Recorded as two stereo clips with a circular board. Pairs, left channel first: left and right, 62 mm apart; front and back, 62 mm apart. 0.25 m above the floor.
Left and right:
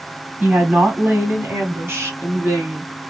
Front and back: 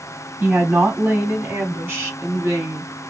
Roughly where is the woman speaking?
Behind right.